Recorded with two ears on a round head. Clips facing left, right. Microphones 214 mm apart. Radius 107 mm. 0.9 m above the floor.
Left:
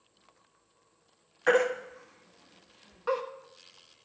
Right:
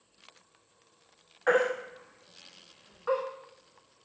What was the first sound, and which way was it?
A baby crying, 45° left (ahead or behind).